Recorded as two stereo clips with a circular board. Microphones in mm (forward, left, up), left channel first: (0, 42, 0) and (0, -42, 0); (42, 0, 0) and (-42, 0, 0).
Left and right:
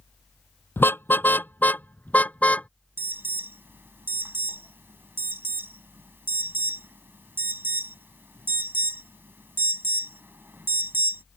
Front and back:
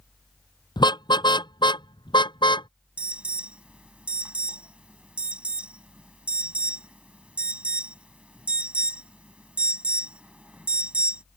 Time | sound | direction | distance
0.8 | a car horn | 25° left | ?
3.0 | an alarm | 120° right | ?